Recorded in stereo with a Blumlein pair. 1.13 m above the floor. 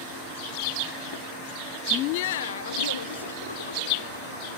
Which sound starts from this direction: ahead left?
Laughter, at 1.9 s.